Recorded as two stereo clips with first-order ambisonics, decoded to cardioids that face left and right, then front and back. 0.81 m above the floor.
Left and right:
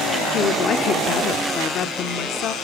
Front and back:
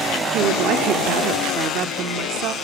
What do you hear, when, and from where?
0.3 s a woman speaking: 140° left, 1.7 m